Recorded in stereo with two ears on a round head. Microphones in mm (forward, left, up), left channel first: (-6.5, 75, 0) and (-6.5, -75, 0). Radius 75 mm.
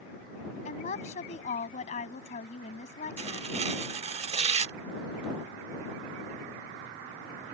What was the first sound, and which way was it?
A woman speaking, 40° left (ahead or behind).